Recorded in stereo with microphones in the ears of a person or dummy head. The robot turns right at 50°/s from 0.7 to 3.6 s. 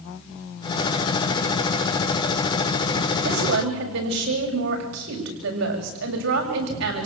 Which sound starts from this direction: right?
A woman speaking, at 3.2 s.